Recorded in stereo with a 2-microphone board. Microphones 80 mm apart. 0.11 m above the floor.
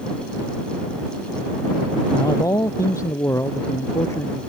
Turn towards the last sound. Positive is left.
turn(degrees=35)  # may be behind; listen again after turning